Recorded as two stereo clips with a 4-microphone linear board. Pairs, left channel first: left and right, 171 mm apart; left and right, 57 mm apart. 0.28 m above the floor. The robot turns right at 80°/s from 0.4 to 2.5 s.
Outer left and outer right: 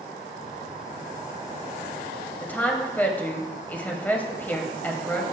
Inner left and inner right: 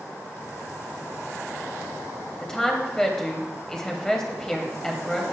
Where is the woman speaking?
15° left (ahead or behind), 1.6 m; by 5.2 s 10° left (ahead or behind), 1.6 m.